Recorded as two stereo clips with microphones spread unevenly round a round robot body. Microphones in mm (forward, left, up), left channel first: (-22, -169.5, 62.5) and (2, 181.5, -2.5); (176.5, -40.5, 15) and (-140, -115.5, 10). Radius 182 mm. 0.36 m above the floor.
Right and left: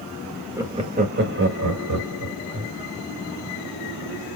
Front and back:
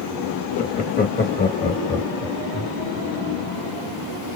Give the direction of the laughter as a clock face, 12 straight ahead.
11 o'clock.